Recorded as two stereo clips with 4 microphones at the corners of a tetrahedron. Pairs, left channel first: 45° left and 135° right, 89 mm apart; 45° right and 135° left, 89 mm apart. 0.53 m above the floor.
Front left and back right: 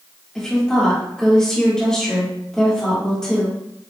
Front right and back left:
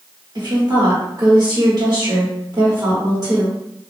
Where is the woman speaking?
125° left, 1.4 m.